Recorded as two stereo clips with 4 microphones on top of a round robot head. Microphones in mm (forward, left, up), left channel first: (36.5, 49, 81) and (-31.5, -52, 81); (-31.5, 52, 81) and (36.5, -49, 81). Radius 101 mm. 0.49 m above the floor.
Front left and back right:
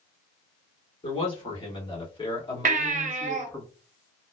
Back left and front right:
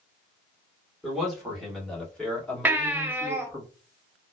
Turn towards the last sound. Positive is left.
turn(degrees=-130)